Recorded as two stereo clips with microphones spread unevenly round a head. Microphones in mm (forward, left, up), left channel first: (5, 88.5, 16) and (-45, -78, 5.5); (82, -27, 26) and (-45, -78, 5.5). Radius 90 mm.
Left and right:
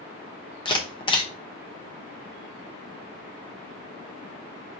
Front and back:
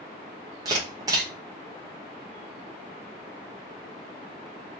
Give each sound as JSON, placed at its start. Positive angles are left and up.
{"t": 0.7, "sound": "a camera shutter", "azimuth_deg": 135, "distance_m": 1.0}